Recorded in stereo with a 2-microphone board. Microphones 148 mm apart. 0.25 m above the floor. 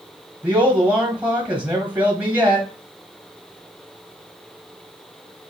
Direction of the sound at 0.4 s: 10° right (ahead or behind).